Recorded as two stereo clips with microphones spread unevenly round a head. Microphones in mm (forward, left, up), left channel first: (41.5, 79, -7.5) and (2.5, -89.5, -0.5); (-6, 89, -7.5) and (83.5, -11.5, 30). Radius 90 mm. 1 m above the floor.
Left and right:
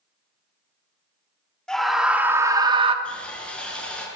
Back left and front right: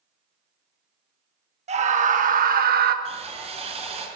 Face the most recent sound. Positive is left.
turn(degrees=-10)